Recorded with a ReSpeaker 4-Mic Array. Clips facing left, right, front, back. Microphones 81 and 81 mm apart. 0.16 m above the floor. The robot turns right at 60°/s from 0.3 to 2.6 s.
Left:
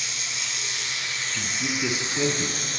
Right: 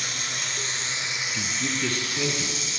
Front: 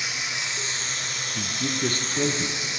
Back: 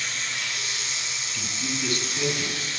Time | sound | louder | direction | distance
0.0 | running water | right 2 dB, front 1 dB | 70° right | 1.8 m
1.3 | a man speaking | left 1 dB, front 4 dB | 25° right | 1.5 m